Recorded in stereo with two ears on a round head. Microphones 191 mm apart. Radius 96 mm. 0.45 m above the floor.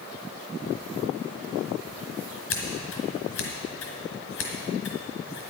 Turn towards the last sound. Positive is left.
turn(degrees=65)  # may be behind; listen again after turning